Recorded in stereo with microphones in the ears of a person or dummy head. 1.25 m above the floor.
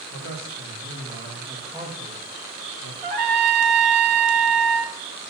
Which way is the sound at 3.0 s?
55° right (ahead or behind).